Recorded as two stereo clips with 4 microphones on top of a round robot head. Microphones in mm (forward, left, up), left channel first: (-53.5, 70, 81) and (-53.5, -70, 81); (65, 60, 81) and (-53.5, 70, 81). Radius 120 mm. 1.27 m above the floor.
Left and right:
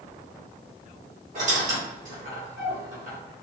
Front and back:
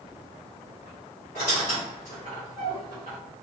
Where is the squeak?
45° right, 0.9 m.